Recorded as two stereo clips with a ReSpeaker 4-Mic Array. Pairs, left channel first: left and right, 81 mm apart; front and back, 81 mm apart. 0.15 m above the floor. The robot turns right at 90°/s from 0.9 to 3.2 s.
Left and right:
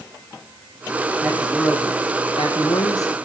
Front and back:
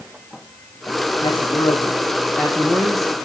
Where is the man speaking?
30° right, 6.5 m; by 3.1 s 145° left, 6.5 m.